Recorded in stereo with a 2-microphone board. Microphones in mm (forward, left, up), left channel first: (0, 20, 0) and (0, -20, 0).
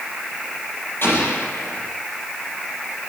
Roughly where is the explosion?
Left.